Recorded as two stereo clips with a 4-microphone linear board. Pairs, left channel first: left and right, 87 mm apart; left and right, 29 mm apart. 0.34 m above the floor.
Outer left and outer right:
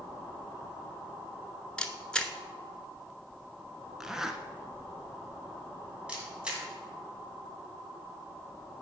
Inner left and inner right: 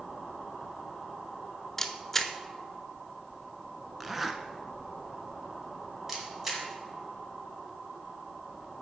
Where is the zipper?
5° right (ahead or behind), 0.7 m.